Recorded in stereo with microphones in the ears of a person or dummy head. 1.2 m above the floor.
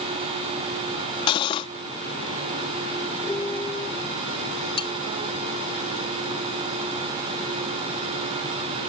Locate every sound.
1.3 s cutlery clinking: 35° left (ahead or behind)
3.2 s a piano: 15° left (ahead or behind)
4.8 s cutlery clinking: 30° left (ahead or behind)